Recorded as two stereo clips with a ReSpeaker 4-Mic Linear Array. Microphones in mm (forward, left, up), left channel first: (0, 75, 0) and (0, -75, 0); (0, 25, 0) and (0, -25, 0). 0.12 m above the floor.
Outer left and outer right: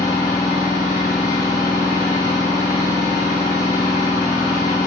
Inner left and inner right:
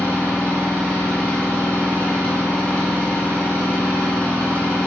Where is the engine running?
25° left (ahead or behind), 2.0 m.